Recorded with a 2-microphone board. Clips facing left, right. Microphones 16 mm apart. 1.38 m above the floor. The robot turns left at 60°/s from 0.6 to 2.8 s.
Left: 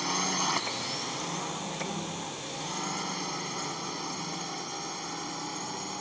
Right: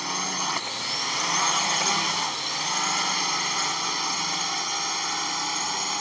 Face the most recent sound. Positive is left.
turn(degrees=-45)  # may be behind; listen again after turning